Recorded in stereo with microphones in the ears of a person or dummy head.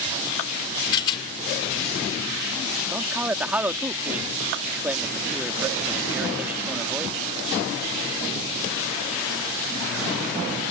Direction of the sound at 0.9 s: 25° left (ahead or behind).